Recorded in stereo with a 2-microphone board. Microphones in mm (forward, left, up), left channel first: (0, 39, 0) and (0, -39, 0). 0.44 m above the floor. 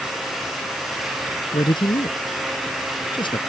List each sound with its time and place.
1.5 s a man speaking: 80° left